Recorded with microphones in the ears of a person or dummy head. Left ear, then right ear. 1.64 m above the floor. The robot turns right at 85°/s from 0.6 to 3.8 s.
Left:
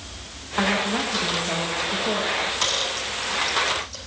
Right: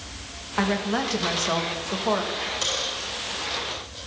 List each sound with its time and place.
0.6 s a woman speaking: straight behind, 1.5 m; by 2.2 s 40° right, 1.5 m
2.3 s a dropped coin: 15° right (ahead or behind), 4.5 m; by 4.0 s 60° left (ahead or behind), 4.5 m